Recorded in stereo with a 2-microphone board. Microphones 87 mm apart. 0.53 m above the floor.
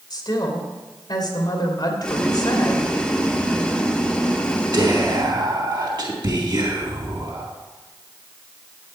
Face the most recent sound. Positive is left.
turn(degrees=-60)  # may be behind; listen again after turning